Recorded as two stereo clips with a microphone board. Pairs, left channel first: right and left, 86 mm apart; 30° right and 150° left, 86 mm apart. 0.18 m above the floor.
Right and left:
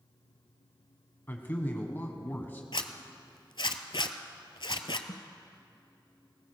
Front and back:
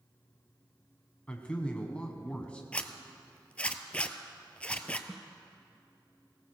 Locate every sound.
1.3 s a man speaking: 80° right, 1.1 m
2.7 s a zipper: 100° right, 0.7 m
5.1 s a snare drum: 125° right, 0.7 m